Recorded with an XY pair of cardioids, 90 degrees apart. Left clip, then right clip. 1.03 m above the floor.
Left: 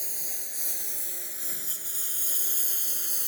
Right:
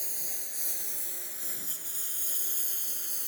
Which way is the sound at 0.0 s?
15° left.